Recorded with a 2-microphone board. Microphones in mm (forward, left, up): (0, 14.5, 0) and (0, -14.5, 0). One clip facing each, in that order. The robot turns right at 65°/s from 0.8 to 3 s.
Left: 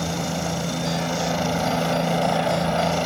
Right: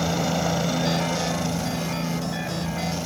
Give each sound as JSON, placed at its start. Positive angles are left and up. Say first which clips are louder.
{"t": 0.0, "sound": "a helicopter", "louder": "right 2 dB", "azimuth_deg": -10}